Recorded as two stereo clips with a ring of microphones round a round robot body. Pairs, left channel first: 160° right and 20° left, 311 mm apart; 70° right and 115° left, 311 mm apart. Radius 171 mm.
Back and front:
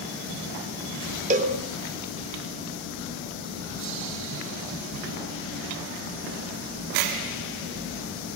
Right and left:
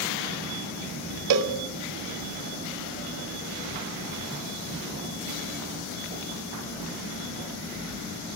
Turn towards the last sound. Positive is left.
turn(degrees=90)